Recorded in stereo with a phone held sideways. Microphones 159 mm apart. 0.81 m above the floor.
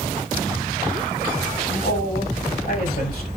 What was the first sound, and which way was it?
A man speaking, 75° left (ahead or behind).